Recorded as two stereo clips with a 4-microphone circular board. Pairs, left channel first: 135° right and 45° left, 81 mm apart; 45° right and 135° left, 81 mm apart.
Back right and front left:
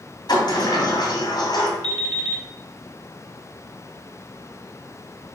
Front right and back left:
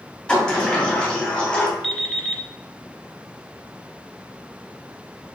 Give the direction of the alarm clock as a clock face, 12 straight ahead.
11 o'clock.